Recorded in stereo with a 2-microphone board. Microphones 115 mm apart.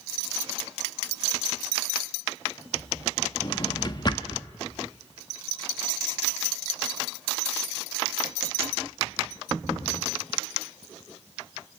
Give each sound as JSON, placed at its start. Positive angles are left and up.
{"t": 3.4, "sound": "a drawer", "side_deg": 35, "distance_m": 0.9}